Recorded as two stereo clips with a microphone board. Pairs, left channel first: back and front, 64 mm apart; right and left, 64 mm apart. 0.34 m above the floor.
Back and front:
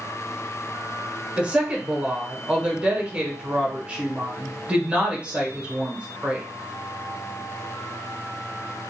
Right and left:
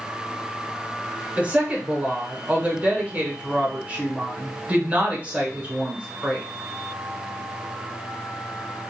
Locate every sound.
1.4 s a woman speaking: 50° left, 0.9 m